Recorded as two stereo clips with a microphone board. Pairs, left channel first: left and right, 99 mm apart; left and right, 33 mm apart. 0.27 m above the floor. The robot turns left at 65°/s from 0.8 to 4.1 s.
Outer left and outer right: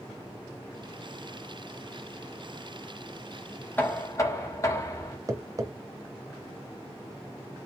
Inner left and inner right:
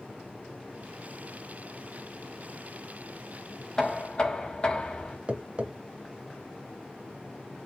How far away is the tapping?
About 0.7 m.